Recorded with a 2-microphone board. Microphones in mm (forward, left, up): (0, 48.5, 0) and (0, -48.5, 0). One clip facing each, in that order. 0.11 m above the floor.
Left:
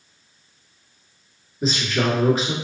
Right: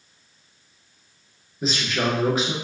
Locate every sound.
1.6 s a man speaking: centre (ahead or behind), 1.5 m